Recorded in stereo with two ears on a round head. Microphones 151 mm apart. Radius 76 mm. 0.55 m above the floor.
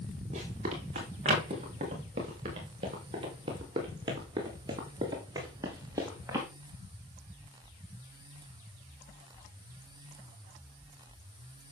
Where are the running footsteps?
40° right (ahead or behind), 8.5 m; by 6.5 s 15° right (ahead or behind), 4.5 m.